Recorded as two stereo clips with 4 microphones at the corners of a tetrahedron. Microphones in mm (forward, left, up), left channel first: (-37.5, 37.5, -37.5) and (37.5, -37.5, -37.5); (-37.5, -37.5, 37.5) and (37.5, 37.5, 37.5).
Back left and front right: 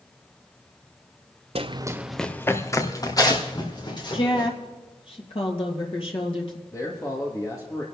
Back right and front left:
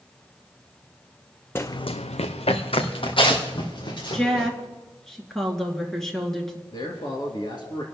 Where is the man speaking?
170° right, 2.5 m.